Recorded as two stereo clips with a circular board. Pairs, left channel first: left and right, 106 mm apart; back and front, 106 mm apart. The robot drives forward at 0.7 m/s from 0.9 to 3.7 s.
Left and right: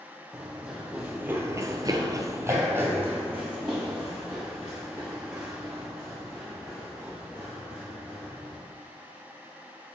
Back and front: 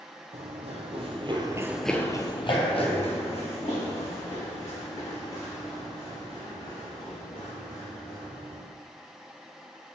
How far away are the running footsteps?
About 1.5 m.